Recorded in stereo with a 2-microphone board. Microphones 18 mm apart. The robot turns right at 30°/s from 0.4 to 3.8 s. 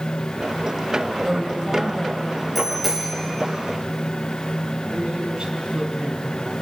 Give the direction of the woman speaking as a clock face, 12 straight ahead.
12 o'clock.